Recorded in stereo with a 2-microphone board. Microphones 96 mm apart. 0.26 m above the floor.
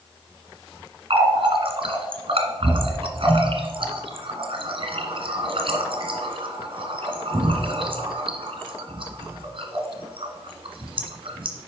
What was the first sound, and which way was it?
A running tap, 60° right (ahead or behind).